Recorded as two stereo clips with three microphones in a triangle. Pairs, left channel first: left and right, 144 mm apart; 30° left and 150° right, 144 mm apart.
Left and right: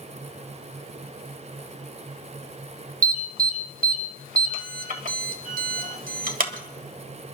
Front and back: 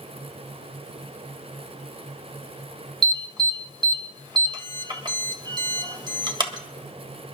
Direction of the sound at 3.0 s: 95° right.